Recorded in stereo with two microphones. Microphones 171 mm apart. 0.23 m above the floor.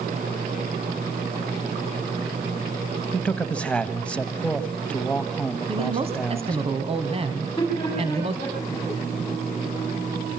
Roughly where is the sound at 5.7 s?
Right.